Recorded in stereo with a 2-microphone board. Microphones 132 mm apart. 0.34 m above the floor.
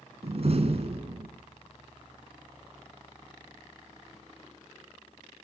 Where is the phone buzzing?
I don't hear a phone buzzing.